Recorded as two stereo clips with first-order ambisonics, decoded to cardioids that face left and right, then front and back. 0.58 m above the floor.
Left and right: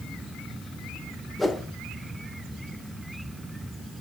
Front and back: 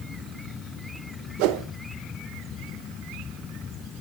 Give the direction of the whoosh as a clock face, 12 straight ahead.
6 o'clock.